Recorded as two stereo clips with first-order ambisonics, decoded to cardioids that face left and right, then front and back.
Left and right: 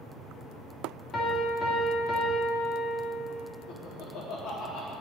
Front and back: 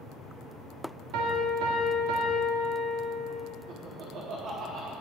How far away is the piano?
About 2 m.